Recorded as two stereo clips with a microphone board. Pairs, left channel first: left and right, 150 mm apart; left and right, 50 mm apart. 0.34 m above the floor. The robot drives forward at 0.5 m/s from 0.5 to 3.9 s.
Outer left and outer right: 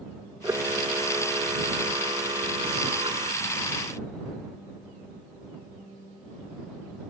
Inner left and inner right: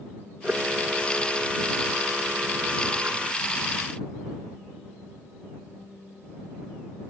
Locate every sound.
0.4 s a camera shutter: 20° right (ahead or behind); by 3.3 s 40° right (ahead or behind)